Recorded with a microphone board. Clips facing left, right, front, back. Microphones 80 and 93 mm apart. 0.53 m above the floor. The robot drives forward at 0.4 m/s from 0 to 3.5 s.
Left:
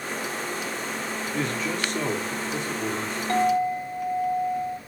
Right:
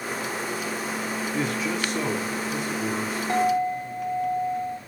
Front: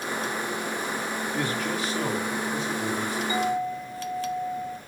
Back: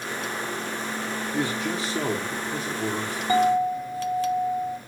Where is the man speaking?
165° right, 1.0 m; by 3.2 s 175° right, 1.5 m.